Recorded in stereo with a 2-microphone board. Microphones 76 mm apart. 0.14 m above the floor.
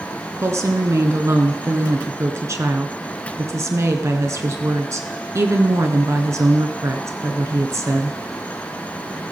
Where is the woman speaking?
40° right (ahead or behind), 1.4 m.